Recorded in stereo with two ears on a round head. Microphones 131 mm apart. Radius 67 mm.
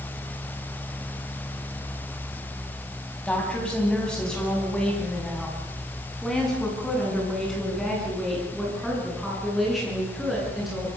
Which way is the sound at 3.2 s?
5° left (ahead or behind).